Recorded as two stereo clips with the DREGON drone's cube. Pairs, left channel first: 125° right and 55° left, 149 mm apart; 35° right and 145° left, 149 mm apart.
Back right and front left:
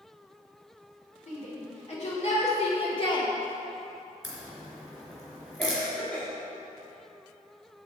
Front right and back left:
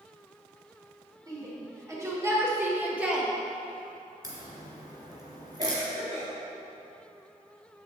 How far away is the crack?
About 2.5 m.